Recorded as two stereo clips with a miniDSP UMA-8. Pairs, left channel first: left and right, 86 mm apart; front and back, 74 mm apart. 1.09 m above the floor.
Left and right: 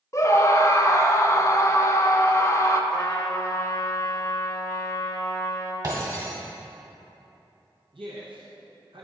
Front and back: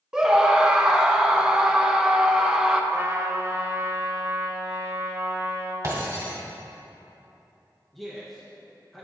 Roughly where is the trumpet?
Behind left.